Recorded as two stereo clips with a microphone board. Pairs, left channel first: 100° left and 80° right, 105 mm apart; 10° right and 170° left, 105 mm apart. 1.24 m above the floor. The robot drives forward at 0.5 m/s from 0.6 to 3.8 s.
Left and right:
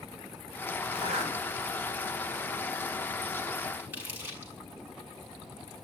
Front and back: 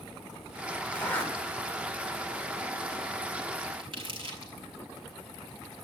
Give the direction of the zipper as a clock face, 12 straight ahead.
3 o'clock.